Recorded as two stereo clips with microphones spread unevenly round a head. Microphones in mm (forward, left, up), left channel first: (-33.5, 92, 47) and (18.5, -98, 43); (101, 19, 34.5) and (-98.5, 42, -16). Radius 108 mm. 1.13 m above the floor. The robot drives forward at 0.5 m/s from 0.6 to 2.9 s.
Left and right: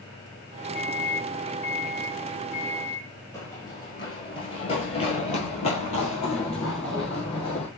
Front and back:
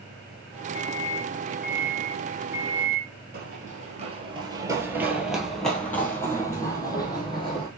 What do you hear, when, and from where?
0.8 s a microwave: 65° left, 1.8 m; by 3.1 s 100° left, 1.7 m
3.3 s running footsteps: 165° left, 1.2 m; by 7.7 s 45° left, 2 m